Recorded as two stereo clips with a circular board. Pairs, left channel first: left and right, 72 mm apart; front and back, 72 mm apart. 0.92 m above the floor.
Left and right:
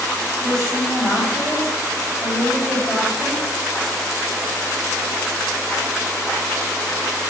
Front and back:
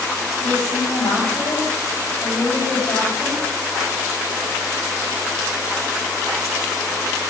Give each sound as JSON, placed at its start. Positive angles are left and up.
{"t": 0.4, "sound": "a woman speaking", "azimuth_deg": 0, "distance_m": 6.0}